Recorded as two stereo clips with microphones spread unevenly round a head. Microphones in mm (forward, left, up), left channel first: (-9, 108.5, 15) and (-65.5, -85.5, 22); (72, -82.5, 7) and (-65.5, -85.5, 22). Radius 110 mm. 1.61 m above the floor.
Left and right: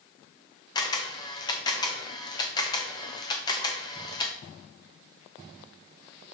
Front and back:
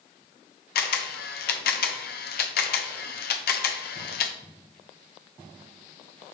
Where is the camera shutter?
Straight ahead, 0.6 m.